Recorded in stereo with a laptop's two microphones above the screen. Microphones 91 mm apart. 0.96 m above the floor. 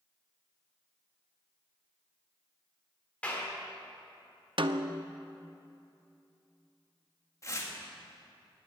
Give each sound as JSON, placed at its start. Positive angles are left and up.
{"t": 3.2, "sound": "a clap", "side_deg": 15, "distance_m": 2.5}
{"t": 4.6, "sound": "a snare drum", "side_deg": -60, "distance_m": 0.6}
{"t": 7.4, "sound": "tearing paper", "side_deg": 35, "distance_m": 2.0}